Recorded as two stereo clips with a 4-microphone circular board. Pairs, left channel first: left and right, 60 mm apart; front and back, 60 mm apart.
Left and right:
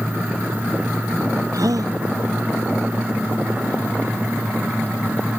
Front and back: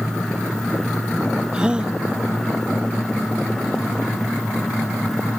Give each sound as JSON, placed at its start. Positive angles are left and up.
{"t": 1.5, "sound": "a gasp", "azimuth_deg": -105}